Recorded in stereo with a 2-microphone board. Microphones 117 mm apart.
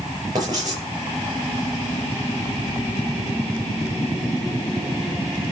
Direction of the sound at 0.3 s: 30° right (ahead or behind).